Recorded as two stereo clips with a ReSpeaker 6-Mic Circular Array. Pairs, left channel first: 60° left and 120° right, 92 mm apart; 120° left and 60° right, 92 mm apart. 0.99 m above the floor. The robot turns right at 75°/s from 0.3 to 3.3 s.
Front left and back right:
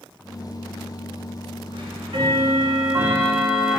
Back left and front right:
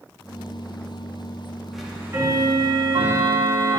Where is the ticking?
150° right, 1.0 m; by 3.8 s 35° right, 1.0 m.